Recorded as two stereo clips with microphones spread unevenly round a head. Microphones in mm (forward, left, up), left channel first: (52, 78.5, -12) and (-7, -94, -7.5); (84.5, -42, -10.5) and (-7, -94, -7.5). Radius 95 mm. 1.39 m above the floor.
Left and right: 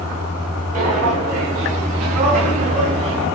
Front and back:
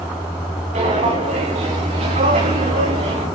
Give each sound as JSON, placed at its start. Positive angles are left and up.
{"t": 0.7, "sound": "footsteps", "azimuth_deg": -160, "distance_m": 7.0}